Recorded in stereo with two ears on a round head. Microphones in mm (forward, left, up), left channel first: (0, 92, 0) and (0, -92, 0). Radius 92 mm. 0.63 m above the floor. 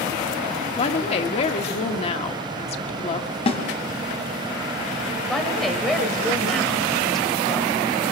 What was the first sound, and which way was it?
A woman speaking, 30° left (ahead or behind).